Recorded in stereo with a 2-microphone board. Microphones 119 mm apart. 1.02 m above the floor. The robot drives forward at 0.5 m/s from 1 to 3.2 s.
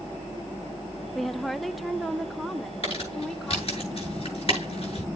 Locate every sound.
1.1 s a woman speaking: centre (ahead or behind), 0.5 m
2.8 s crumpling: 50° left (ahead or behind), 8 m; by 5.1 s 55° left (ahead or behind), 8 m